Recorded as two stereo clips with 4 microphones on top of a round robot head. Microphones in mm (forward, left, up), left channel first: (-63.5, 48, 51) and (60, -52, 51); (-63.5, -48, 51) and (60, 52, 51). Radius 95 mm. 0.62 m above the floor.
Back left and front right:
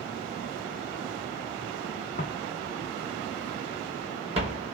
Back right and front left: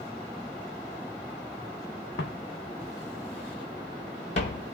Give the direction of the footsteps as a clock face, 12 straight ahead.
6 o'clock.